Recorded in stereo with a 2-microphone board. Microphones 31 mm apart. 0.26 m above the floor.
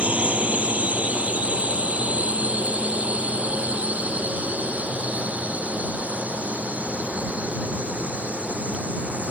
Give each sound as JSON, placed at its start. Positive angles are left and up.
{"t": 0.0, "sound": "a drone", "side_deg": -50}